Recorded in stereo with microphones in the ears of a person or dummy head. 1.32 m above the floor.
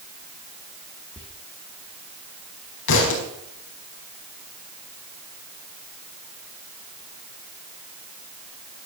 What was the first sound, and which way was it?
Whispering, 35° left (ahead or behind).